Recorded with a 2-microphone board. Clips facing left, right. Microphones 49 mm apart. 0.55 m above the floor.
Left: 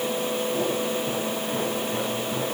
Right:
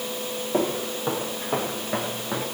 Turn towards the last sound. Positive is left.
turn(degrees=-45)  # may be behind; listen again after turning